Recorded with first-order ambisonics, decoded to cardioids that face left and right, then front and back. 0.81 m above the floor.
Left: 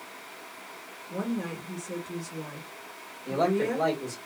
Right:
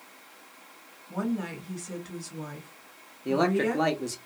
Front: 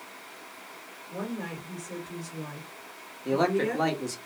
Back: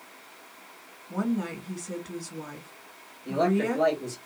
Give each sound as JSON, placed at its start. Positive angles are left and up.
{"t": 1.1, "sound": "a woman speaking", "azimuth_deg": -150, "distance_m": 1.7}
{"t": 3.2, "sound": "a man speaking", "azimuth_deg": -60, "distance_m": 1.2}